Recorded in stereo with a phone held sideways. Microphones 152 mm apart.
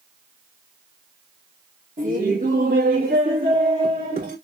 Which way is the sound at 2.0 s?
65° right (ahead or behind).